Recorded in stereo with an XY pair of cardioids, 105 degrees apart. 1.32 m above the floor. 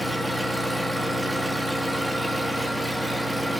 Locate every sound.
0.0 s an engine running: 5° right, 1.7 m